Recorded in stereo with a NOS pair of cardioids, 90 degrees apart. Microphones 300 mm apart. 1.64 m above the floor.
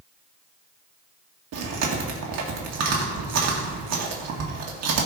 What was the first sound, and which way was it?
Chewing, 60° right.